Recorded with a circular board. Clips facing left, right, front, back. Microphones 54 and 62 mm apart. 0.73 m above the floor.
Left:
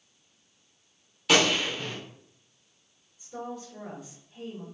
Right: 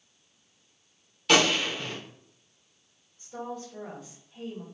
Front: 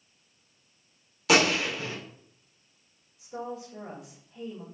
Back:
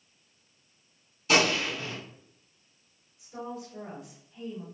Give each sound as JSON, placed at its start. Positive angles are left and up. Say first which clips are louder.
{"t": 1.3, "sound": "a gunshot", "louder": "even, front 2 dB", "azimuth_deg": 0, "distance_m": 1.1}
{"t": 3.2, "sound": "a woman speaking", "louder": "right 1 dB, front 2 dB", "azimuth_deg": 10, "distance_m": 2.0}